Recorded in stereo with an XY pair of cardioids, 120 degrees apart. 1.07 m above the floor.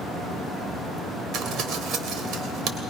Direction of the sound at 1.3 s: 70° right.